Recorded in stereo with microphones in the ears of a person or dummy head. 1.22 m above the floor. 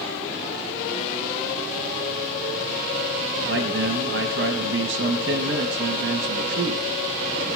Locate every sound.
3.5 s a man speaking: 65° right (ahead or behind), 1.6 m